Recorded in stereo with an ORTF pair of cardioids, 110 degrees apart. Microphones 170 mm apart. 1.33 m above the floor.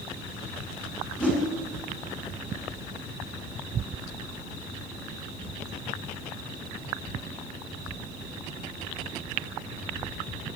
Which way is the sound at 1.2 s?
5° left.